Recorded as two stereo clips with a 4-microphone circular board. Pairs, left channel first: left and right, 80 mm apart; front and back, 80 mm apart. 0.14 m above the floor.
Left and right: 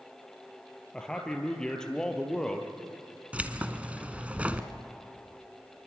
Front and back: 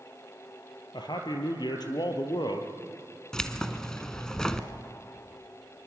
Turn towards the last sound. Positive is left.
turn(degrees=-65)